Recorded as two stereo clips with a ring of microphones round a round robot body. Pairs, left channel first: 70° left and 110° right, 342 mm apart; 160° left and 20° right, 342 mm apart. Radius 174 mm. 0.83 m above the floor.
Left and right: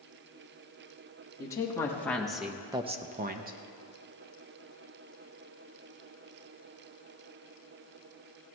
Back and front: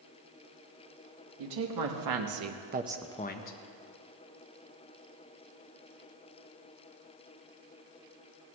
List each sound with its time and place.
1.4 s a woman speaking: 15° right, 2.0 m; by 3.6 s 170° right, 1.0 m